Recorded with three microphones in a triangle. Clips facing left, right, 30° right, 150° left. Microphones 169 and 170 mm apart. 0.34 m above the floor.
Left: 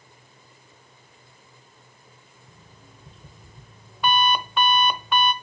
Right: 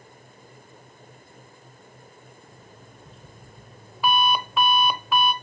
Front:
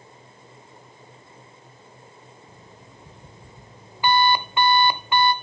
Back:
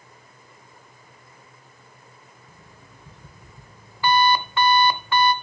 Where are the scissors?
No scissors in this recording.